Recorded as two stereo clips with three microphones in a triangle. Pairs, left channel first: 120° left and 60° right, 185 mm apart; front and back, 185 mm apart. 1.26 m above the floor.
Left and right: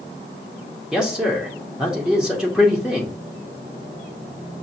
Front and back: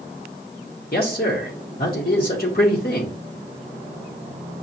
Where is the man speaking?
25° left, 0.8 m.